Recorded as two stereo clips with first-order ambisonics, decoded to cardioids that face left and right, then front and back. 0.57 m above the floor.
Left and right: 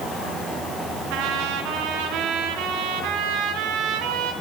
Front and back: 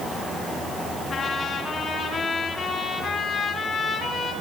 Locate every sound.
1.1 s a trumpet: 75° right, 2.5 m